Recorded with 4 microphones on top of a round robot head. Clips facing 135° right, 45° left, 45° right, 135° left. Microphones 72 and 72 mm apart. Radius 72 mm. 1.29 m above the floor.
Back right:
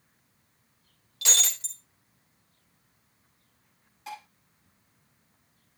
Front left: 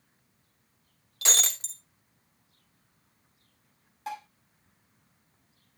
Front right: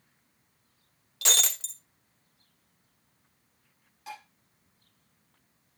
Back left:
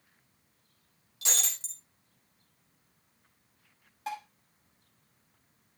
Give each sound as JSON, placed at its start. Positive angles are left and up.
{"t": 1.2, "sound": "breaking glass", "azimuth_deg": -10, "distance_m": 0.7}
{"t": 4.1, "sound": "dishes clattering", "azimuth_deg": 85, "distance_m": 6.0}